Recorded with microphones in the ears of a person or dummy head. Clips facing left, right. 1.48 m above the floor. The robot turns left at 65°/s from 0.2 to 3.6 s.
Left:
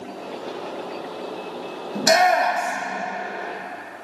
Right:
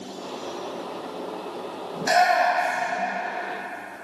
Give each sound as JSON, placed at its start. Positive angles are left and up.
{"t": 1.9, "sound": "a shout", "side_deg": 60, "distance_m": 2.0}